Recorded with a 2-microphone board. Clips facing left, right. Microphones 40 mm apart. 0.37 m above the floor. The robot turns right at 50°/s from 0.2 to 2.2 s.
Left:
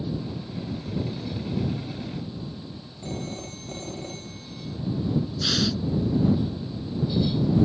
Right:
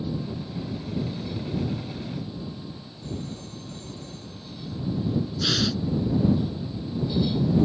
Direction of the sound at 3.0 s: 60° left (ahead or behind).